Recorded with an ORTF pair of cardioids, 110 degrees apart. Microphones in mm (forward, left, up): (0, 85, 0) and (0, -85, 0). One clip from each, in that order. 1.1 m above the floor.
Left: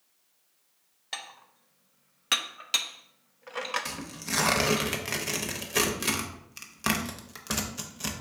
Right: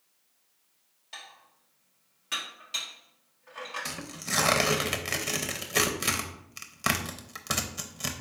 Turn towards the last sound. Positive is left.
turn(degrees=-5)